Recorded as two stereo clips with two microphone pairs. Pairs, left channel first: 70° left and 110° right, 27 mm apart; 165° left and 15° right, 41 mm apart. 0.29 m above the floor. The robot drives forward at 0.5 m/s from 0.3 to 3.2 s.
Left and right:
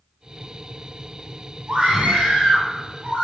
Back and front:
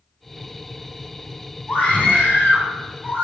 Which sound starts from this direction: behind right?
A scream, at 1.7 s.